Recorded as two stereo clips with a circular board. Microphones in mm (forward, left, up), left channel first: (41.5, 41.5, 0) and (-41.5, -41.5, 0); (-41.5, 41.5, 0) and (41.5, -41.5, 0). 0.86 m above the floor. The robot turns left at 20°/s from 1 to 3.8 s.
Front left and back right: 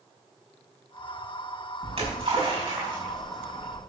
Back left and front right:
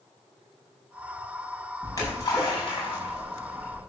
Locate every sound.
1.8 s a splash: 165° right, 6 m; by 3.8 s 155° left, 6 m